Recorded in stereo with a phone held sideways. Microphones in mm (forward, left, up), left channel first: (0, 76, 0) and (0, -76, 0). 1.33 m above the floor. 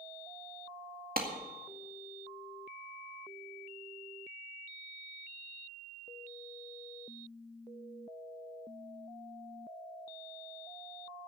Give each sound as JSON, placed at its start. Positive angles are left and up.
{"t": 1.2, "sound": "a clap", "side_deg": -70, "distance_m": 2.0}